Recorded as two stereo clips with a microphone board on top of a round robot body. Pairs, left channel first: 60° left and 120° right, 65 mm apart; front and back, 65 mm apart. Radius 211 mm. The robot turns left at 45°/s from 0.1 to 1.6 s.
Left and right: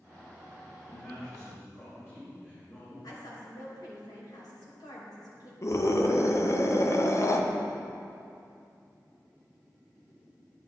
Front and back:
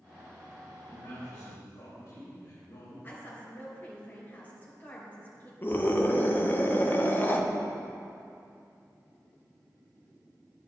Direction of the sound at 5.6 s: 45° left.